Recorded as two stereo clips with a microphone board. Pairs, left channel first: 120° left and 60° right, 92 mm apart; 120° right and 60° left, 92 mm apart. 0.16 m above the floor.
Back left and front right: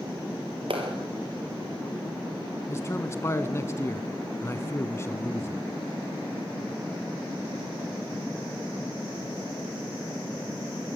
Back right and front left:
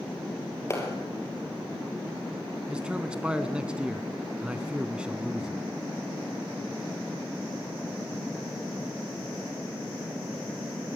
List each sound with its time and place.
0.7 s a clap: 60° right, 4 m
2.7 s a man speaking: 130° left, 1.2 m